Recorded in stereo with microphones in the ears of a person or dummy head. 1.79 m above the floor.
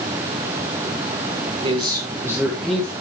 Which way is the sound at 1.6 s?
30° right (ahead or behind).